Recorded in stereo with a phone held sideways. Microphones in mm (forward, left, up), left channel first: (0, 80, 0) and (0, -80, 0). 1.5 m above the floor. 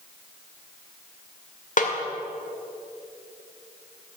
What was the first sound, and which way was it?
A snare drum, 60° left (ahead or behind).